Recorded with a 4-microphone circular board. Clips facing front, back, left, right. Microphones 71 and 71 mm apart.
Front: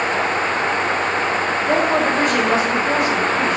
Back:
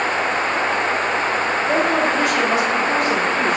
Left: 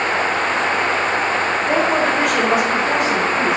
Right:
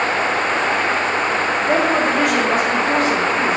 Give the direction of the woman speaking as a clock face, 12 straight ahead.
12 o'clock.